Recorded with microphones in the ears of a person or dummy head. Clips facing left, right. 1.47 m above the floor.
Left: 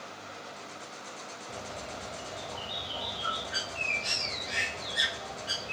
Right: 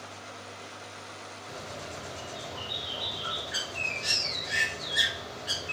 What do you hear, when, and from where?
1.5 s a bird: 20° right (ahead or behind), 3.5 m